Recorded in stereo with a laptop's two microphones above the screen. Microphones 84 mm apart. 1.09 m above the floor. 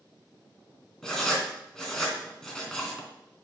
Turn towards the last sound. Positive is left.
turn(degrees=10)  # may be behind; listen again after turning